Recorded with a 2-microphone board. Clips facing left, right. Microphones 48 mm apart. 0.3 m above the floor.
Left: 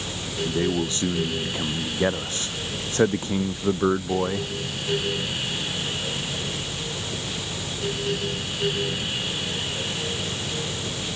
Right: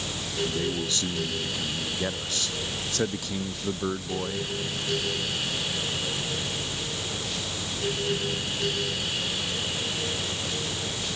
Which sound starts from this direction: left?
A man speaking, at 0.5 s.